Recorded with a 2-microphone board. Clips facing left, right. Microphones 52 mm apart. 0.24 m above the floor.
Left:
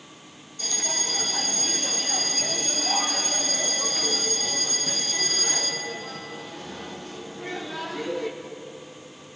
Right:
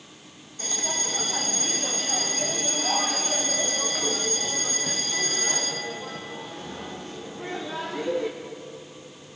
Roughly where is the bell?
Right.